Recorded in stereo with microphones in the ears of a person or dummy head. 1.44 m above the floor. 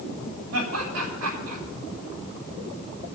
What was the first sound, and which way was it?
Laughter, 85° right.